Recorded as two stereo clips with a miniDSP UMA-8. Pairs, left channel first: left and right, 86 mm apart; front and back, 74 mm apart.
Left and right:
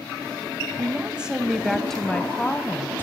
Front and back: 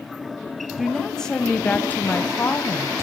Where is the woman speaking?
95° right, 1.1 m; by 3.0 s 35° left, 1.4 m.